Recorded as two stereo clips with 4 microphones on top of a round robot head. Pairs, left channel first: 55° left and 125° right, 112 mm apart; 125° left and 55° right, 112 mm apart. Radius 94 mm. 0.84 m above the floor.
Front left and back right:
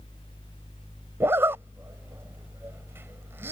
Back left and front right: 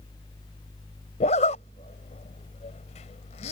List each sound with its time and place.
1.2 s a zipper: 160° left